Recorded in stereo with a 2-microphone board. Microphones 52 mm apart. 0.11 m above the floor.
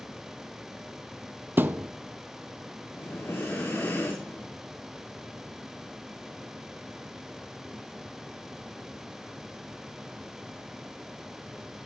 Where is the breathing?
55° left (ahead or behind), 7.5 m.